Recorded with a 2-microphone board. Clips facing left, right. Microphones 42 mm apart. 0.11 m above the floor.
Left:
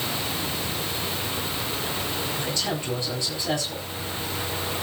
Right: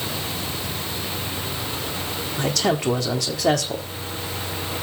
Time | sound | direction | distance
2.4 | a man speaking | 70° right (ahead or behind) | 4 m